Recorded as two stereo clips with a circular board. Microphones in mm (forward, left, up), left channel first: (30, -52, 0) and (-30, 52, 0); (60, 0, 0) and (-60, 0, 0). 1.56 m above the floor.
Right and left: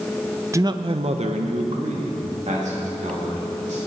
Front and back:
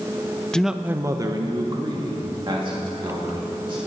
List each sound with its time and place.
0.5 s a man speaking: 75° left, 0.5 m; by 3.8 s 135° left, 3.5 m